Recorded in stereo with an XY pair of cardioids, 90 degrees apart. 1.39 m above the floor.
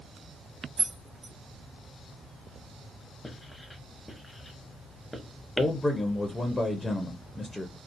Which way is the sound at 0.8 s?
60° right.